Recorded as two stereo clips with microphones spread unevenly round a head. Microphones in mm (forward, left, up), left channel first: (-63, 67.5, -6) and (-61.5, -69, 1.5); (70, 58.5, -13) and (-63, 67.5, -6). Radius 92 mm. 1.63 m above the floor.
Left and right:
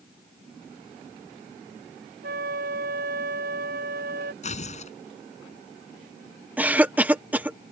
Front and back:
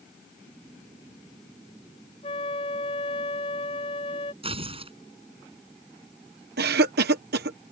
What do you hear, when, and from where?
2.2 s a flute: 65° right
4.4 s tearing paper: 130° left
6.6 s a cough: 170° right